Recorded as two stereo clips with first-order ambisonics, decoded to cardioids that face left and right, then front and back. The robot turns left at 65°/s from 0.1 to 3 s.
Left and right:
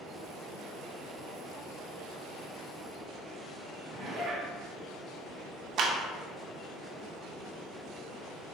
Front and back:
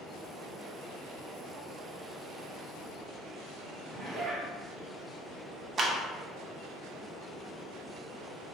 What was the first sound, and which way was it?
A zipper, 130° right.